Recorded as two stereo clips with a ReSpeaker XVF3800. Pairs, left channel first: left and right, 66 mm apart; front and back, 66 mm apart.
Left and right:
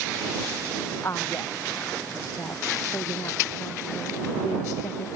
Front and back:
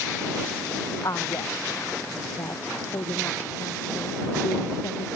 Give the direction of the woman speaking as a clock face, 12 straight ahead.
11 o'clock.